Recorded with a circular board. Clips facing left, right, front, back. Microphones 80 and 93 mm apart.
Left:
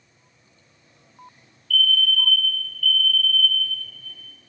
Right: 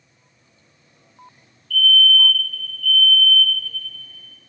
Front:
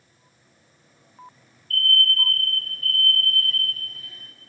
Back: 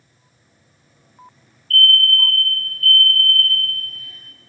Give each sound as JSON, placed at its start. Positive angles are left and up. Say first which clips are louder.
{"t": 1.7, "sound": "a fire alarm", "louder": "right 5 dB, back 6 dB", "azimuth_deg": -35, "distance_m": 2.0}